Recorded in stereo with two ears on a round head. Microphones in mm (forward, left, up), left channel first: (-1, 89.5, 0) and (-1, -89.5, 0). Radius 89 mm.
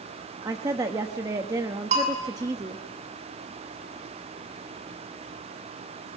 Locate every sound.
0.4 s a woman speaking: 15° right (ahead or behind), 0.9 m
1.9 s a bell: 35° right (ahead or behind), 7 m